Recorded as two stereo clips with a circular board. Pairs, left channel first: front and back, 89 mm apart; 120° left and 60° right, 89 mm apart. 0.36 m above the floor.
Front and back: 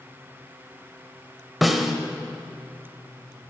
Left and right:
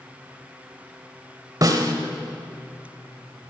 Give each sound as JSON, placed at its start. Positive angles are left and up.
{"t": 1.6, "sound": "a snare drum", "azimuth_deg": -90, "distance_m": 1.0}